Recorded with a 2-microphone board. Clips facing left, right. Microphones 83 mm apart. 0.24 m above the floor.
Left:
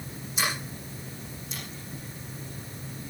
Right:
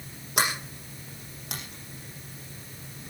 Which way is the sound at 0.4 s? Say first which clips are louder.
Right 3 dB; 70° right (ahead or behind).